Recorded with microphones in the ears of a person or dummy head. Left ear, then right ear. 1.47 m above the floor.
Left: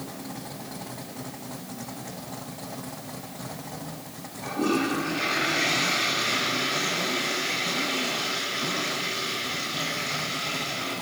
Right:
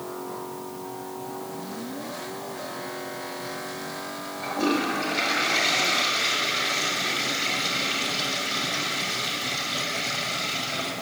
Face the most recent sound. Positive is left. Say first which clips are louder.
# right 1 dB
turn(degrees=-40)  # may be behind; listen again after turning